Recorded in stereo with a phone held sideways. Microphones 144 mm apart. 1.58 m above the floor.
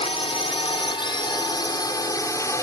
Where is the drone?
40° left (ahead or behind); by 2.6 s 20° left (ahead or behind).